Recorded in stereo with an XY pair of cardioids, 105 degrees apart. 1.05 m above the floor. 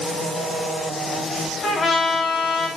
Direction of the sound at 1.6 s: 40° left.